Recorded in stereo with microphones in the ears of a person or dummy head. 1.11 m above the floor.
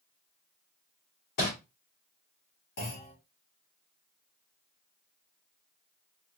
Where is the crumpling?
45° left (ahead or behind), 2.5 m.